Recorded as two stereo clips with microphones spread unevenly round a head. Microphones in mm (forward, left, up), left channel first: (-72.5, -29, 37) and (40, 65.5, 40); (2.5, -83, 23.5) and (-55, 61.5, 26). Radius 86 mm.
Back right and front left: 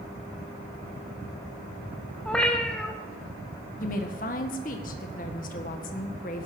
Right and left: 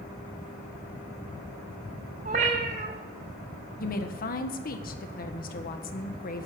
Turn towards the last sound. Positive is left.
turn(degrees=-100)